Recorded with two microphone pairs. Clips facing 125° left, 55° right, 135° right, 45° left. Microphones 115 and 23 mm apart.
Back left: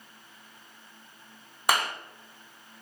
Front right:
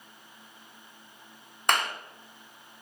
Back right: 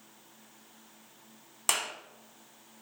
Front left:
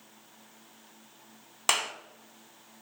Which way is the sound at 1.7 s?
50° left.